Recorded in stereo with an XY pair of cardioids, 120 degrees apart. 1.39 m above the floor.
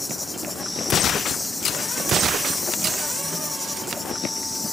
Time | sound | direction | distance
0.0 | an insect | 10° left | ?